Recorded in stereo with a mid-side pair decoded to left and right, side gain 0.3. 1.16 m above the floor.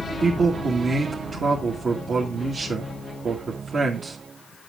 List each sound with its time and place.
0.2 s a man speaking: 70° right, 1.9 m